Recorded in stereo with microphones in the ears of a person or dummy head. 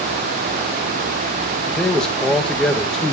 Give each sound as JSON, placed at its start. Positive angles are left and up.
{"t": 1.7, "sound": "a man speaking", "side_deg": 5, "distance_m": 1.9}